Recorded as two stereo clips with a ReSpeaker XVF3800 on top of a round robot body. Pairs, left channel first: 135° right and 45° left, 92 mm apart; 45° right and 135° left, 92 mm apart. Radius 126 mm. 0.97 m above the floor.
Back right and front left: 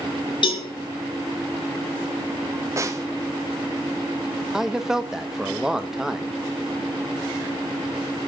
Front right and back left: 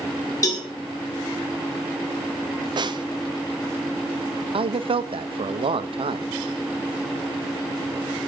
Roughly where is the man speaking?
Behind left.